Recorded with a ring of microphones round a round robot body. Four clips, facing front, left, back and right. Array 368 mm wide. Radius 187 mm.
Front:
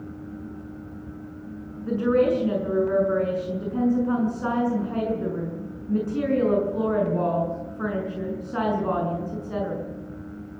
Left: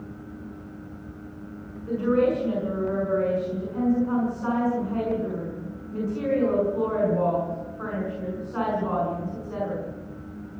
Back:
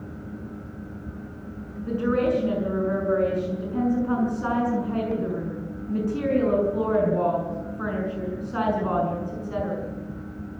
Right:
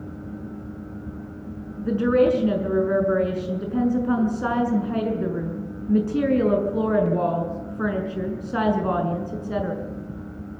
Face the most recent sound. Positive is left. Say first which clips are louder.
# right 3 dB, front 2 dB
turn(degrees=-90)